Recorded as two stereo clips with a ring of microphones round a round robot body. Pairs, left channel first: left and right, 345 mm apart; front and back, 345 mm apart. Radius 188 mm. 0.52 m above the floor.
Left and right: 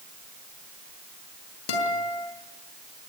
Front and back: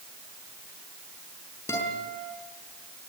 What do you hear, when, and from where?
1.7 s a guitar: 85° left, 6 m